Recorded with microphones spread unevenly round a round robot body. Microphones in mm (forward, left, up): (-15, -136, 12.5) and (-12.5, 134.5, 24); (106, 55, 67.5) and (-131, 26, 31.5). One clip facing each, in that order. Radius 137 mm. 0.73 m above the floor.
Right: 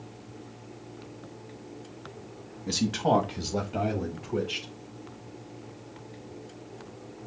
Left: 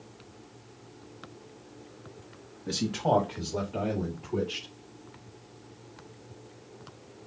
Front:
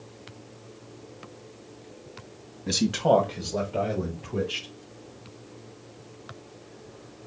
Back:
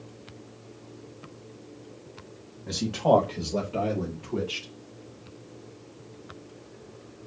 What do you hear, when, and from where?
2.7 s a man speaking: 25° right, 1.1 m; by 4.7 s 135° right, 3 m